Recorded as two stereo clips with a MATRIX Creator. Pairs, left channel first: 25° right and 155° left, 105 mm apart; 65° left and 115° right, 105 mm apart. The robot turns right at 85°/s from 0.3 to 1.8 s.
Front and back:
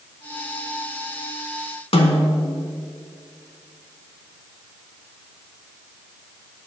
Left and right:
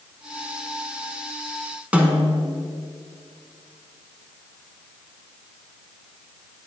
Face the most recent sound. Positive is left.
turn(degrees=-35)